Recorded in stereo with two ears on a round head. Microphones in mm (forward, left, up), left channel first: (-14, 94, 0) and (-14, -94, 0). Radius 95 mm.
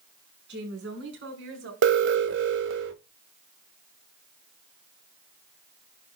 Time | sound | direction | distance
0.5 | a woman speaking | 55° right (ahead or behind) | 6 m
1.8 | an alarm | 65° right (ahead or behind) | 1.8 m